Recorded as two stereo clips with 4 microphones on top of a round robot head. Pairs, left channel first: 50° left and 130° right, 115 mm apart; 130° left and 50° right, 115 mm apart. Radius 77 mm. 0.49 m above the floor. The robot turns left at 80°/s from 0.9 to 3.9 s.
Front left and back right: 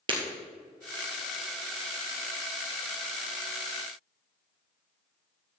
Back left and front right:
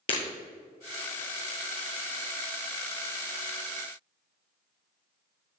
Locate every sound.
0.1 s breaking glass: straight behind, 2.0 m